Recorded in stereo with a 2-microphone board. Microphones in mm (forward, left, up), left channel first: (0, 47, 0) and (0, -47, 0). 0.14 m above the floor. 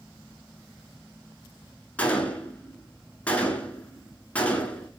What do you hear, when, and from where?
2.0 s a gunshot: 15° left (ahead or behind), 0.9 m